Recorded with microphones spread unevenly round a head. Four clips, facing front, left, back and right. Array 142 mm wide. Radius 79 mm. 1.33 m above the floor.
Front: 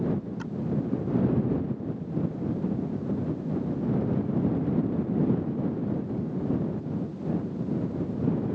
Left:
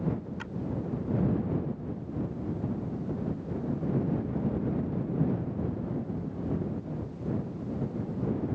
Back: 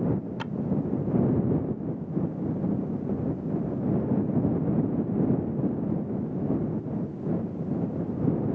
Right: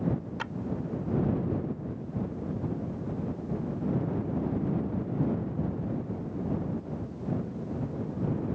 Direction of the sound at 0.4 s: 155° right.